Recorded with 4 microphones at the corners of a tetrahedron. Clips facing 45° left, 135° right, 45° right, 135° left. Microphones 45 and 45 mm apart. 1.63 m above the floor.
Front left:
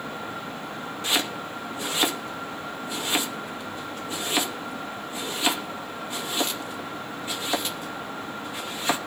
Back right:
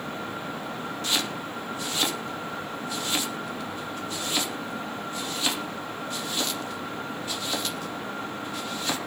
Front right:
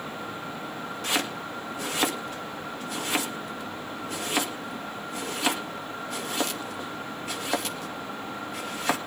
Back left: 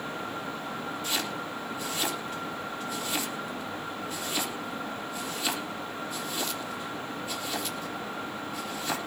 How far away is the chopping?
About 2.5 m.